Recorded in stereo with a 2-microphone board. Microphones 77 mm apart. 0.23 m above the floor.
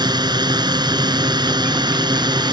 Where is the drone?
60° right (ahead or behind).